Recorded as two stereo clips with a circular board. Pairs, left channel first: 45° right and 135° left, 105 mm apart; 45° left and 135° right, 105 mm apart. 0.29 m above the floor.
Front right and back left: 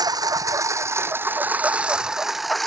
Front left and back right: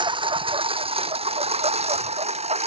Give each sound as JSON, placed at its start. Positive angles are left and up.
{"t": 0.0, "sound": "a lawn mower", "azimuth_deg": -175}